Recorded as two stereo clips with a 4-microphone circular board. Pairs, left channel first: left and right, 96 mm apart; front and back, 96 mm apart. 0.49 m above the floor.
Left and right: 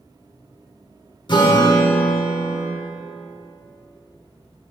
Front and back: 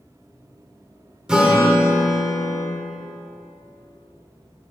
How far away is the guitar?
About 1.1 m.